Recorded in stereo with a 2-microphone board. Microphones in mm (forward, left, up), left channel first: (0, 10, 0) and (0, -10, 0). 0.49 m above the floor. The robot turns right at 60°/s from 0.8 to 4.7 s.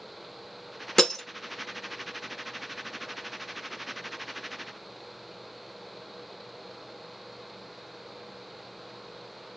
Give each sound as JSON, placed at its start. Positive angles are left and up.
{"t": 1.0, "sound": "breaking glass", "side_deg": 15, "distance_m": 0.7}